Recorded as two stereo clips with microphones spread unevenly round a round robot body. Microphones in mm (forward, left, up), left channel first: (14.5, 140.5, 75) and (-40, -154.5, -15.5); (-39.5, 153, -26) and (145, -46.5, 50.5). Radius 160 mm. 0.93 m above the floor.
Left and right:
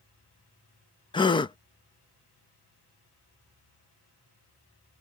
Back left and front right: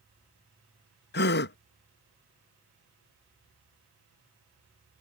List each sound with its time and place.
1.1 s a gasp: 165° left